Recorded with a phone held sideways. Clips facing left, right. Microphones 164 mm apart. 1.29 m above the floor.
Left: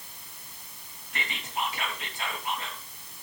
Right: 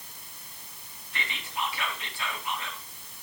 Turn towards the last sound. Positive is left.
turn(degrees=45)  # may be behind; listen again after turning